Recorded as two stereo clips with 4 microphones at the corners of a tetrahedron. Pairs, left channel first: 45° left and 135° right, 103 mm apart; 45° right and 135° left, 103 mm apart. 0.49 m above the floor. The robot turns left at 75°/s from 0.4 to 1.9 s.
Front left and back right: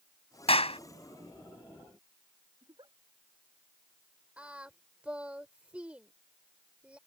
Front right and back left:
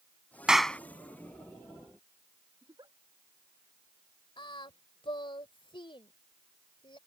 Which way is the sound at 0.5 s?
55° left.